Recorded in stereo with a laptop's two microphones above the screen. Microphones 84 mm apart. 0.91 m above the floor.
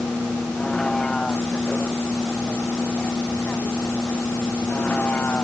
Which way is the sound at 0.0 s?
5° left (ahead or behind).